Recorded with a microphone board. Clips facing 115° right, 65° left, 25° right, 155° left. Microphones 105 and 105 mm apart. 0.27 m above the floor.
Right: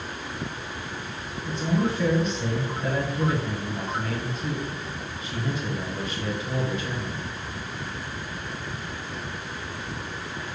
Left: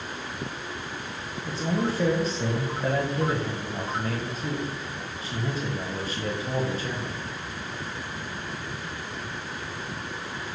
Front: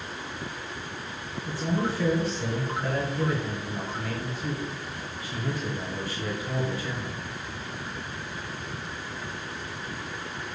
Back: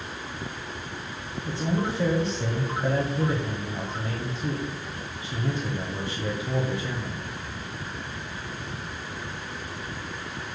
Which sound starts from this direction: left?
A man speaking, at 1.4 s.